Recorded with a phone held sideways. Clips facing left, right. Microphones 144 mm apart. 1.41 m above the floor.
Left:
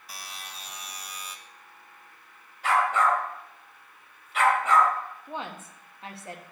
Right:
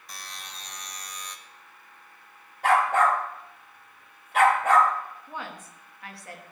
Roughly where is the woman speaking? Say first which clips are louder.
Left 2 dB; left.